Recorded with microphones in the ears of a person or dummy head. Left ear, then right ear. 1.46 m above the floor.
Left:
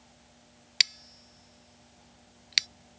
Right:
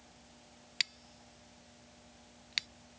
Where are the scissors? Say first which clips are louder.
Left 10 dB; 25° left (ahead or behind).